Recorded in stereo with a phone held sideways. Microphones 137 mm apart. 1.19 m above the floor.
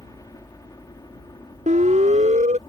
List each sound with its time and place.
0.0 s a helicopter: 25° left (ahead or behind); by 2.7 s 30° left (ahead or behind)
1.7 s a siren: 65° right (ahead or behind)